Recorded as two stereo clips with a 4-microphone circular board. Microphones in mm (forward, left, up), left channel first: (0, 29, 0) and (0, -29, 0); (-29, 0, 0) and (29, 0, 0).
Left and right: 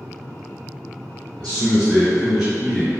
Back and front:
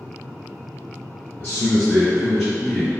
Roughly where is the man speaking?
Behind left.